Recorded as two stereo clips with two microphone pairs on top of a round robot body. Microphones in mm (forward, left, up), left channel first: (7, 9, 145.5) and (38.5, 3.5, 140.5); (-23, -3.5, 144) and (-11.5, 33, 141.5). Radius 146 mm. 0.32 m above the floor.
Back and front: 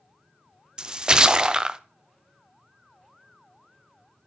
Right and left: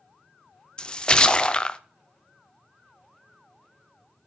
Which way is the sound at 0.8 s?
50° right.